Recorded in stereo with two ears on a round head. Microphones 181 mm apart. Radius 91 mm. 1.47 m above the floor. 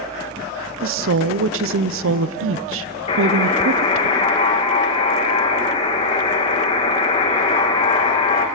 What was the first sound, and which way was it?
A woman speaking, 75° right (ahead or behind).